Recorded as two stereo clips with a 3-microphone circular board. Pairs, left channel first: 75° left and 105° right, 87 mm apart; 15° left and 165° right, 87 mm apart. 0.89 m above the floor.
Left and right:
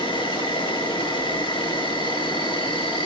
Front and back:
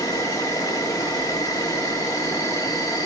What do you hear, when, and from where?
0.0 s an insect: 60° left, 3 m